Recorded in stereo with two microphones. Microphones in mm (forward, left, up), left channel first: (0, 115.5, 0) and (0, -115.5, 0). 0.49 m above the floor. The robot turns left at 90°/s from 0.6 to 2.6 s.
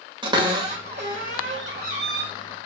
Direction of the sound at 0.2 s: 20° right (ahead or behind).